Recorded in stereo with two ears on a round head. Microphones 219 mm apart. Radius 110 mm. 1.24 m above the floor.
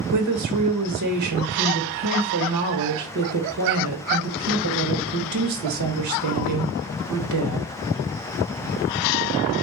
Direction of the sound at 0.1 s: 80° right.